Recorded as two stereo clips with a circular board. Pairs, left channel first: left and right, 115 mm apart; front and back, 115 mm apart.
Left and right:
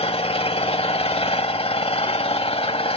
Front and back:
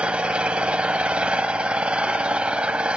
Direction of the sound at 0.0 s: 100° left.